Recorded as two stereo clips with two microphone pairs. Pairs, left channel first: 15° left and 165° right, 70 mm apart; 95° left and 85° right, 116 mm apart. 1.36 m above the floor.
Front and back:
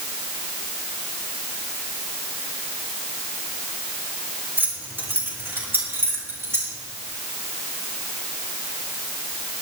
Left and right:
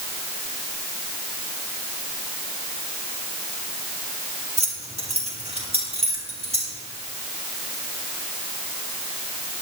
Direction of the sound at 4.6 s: 105° right.